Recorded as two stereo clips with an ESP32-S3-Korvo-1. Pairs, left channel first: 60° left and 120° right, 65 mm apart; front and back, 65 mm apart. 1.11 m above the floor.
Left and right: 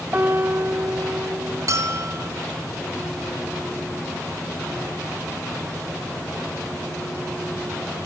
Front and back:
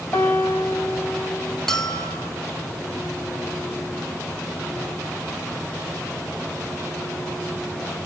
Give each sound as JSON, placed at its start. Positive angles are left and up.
{"t": 0.1, "sound": "a piano", "azimuth_deg": -65, "distance_m": 1.7}
{"t": 1.7, "sound": "a bell", "azimuth_deg": -80, "distance_m": 3.0}